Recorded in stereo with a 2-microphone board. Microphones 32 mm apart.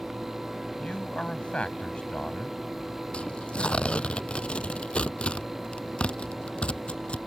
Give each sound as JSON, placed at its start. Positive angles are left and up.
{"t": 0.8, "sound": "a man speaking", "side_deg": 35}
{"t": 3.1, "sound": "tearing paper", "side_deg": 35}